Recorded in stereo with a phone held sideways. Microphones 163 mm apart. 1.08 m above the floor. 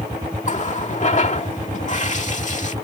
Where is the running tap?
45° left (ahead or behind).